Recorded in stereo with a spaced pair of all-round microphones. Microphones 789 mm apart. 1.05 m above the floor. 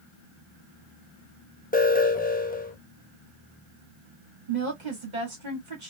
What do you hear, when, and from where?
1.7 s an alarm: 10° left (ahead or behind), 0.8 m
4.5 s a woman speaking: 70° right (ahead or behind), 2 m